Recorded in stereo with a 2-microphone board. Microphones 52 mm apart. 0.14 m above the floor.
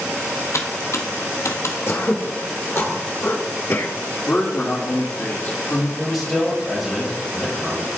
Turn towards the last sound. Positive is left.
turn(degrees=5)  # may be behind; listen again after turning